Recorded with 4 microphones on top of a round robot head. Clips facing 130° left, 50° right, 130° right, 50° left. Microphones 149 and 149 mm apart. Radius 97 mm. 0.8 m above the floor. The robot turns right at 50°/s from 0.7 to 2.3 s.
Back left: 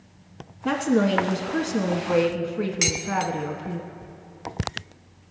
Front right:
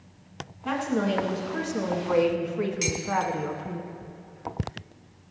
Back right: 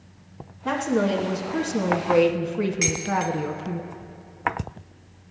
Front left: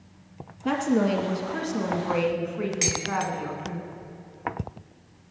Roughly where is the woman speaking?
Behind left.